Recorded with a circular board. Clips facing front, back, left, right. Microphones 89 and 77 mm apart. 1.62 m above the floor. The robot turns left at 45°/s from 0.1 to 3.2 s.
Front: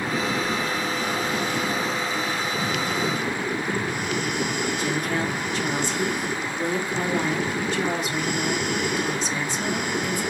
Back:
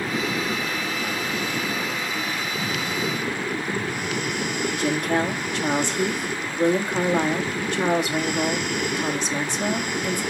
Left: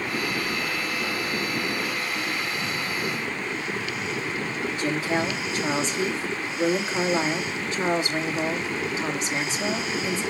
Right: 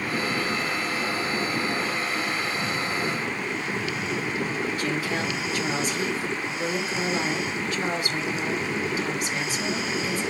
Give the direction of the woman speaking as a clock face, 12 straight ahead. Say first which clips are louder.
Back 3 dB, left 2 dB; 7 o'clock.